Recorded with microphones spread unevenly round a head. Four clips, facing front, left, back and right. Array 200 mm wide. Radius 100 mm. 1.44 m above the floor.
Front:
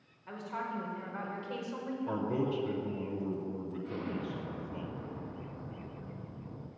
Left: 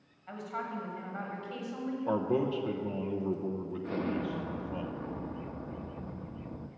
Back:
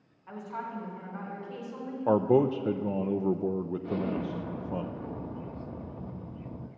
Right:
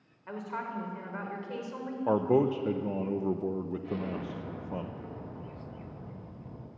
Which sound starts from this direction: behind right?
A man speaking, at 2.1 s.